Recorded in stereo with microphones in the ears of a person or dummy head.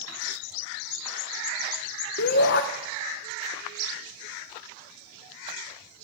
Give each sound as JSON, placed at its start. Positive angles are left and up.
{"t": 2.2, "sound": "a shout", "side_deg": 50, "distance_m": 0.7}